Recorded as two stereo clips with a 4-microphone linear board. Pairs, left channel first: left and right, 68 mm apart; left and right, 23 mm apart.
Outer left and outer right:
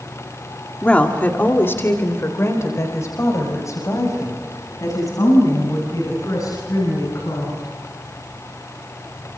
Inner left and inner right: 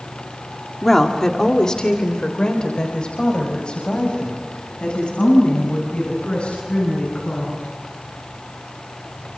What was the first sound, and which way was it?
A woman speaking, 15° left (ahead or behind).